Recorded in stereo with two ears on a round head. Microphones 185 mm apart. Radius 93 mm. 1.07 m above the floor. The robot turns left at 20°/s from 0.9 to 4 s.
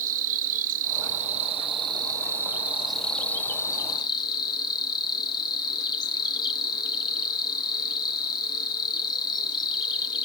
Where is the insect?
140° right, 0.7 m; by 10.3 s 160° left, 0.7 m.